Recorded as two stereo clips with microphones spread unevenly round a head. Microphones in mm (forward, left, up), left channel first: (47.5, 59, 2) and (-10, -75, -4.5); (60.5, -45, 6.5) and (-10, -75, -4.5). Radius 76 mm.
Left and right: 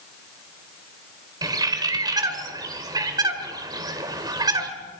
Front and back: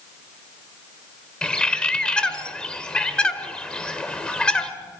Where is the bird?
50° right, 2.0 m.